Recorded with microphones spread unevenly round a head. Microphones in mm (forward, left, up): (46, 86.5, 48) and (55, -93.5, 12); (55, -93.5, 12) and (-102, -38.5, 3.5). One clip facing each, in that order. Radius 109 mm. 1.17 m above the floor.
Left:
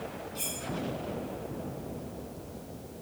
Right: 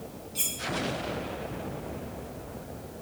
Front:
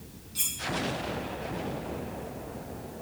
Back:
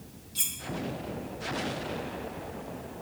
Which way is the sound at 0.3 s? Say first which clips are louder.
Left 2 dB, front 1 dB; 135° right.